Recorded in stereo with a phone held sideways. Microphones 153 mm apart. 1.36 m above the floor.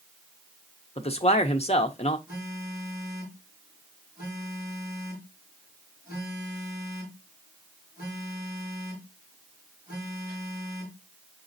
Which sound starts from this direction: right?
A phone buzzing, at 2.3 s.